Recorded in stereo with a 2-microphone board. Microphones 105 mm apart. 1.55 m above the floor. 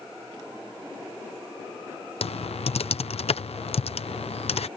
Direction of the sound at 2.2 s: 70° left (ahead or behind).